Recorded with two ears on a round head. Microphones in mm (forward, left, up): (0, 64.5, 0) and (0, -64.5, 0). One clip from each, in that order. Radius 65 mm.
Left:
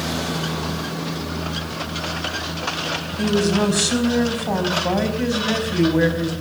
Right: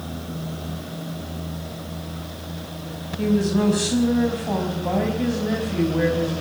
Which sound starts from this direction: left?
A woman speaking, at 3.2 s.